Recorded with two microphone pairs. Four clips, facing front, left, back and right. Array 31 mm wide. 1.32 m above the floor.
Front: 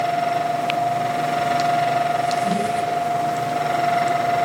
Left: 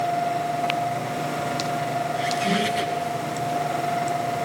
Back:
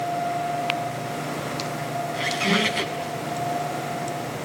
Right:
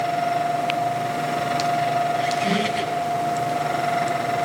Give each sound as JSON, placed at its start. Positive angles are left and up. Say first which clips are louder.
{"t": 2.1, "sound": "a squeak", "louder": "right 2 dB, front 2 dB", "azimuth_deg": -165, "distance_m": 8.0}